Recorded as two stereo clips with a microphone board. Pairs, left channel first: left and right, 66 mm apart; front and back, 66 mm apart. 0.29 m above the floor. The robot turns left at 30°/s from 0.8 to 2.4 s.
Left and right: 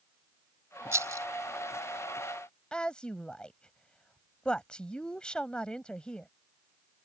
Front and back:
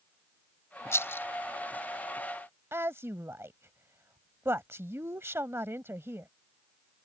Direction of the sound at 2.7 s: 160° left.